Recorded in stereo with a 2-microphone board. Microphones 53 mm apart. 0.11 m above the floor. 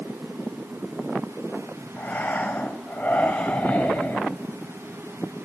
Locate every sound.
2.0 s breathing: 25° left (ahead or behind), 3 m